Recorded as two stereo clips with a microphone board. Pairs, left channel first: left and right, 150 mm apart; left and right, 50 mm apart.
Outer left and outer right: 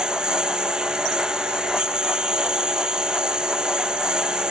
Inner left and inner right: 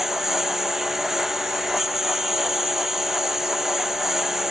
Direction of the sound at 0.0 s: 5° right (ahead or behind).